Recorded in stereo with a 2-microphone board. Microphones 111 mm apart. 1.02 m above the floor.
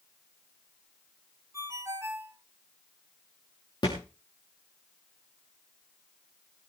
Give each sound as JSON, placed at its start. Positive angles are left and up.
{"t": 1.5, "sound": "a ringtone", "side_deg": -25, "distance_m": 2.5}
{"t": 3.8, "sound": "a thud", "side_deg": 40, "distance_m": 6.0}